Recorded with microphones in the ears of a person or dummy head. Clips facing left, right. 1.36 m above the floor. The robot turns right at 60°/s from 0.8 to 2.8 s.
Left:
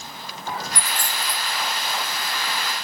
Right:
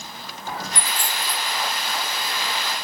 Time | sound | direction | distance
0.8 | a dropped coin | 20° left (ahead or behind) | 1.0 m